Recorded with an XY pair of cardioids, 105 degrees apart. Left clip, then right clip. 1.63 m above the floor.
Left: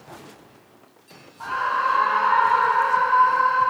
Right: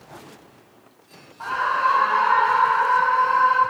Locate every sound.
1.4 s a scream: 20° right, 2 m; by 3.6 s 55° right, 5 m